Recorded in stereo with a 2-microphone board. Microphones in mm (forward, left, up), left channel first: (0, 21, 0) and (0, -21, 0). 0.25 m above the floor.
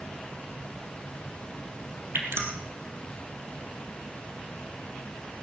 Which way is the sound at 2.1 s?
80° right.